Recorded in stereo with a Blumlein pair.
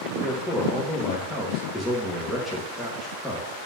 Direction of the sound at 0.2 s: 10° left.